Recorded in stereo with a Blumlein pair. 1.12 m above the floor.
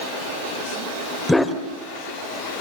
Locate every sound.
1.3 s a dog barking: 5° left, 1.8 m